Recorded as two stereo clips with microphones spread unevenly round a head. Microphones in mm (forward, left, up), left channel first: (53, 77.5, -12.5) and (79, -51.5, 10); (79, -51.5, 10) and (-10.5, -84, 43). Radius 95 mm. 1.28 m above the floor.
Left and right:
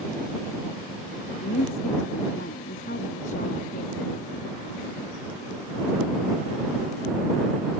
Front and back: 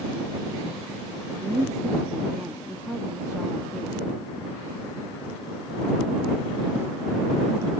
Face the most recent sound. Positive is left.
turn(degrees=100)